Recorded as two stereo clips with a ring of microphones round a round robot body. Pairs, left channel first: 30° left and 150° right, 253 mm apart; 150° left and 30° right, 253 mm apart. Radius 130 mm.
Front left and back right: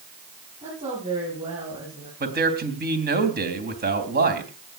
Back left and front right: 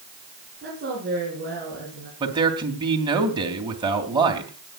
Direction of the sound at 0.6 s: 85° right.